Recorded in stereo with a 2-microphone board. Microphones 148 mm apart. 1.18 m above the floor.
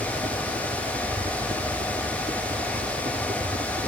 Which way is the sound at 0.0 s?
55° right (ahead or behind).